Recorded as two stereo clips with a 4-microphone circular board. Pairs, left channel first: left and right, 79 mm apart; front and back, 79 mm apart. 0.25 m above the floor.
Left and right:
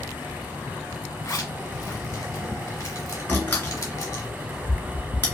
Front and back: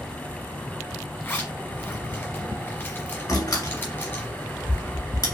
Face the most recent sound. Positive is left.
turn(degrees=30)